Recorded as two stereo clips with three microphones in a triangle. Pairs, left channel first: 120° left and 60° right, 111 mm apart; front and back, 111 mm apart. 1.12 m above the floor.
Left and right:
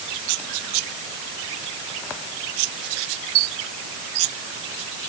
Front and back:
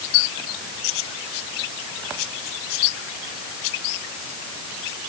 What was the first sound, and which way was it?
Only background noise.